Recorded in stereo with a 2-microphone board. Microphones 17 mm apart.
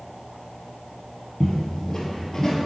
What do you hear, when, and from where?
1.4 s footsteps: 30° left (ahead or behind), 1.7 m; by 2.7 s 40° left (ahead or behind), 1.7 m